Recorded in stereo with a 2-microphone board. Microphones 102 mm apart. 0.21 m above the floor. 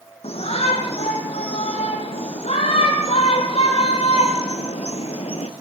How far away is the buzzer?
No buzzer in this recording.